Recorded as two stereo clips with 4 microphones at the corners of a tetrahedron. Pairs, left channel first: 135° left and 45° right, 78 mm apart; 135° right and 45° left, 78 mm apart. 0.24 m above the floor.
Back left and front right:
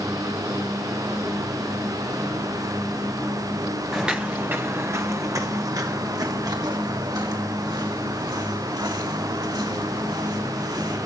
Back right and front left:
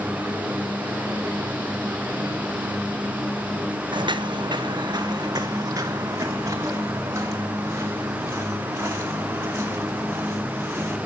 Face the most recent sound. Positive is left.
turn(degrees=-15)